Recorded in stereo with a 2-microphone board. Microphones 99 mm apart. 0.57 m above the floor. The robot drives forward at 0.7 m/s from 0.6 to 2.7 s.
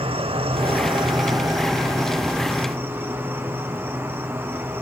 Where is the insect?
70° right (ahead or behind), 0.8 m; by 4.8 s 20° right (ahead or behind), 1.9 m.